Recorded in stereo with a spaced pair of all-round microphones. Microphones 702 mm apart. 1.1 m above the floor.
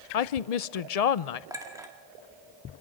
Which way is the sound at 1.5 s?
5° right (ahead or behind).